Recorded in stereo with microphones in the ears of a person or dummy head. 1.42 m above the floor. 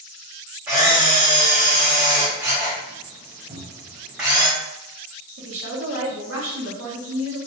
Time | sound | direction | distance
0.7 | a camera shutter | 10° right (ahead or behind) | 1.4 m
3.5 | a cupboard door | 35° right (ahead or behind) | 1.4 m
5.4 | a woman speaking | 70° right (ahead or behind) | 1.2 m